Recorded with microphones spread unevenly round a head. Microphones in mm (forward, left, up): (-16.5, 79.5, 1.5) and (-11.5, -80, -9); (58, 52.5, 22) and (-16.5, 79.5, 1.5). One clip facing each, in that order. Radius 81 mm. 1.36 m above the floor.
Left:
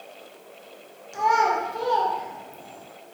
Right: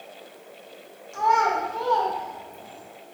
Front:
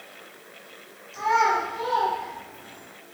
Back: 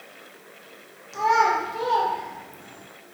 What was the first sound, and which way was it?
A child speaking, 160° left.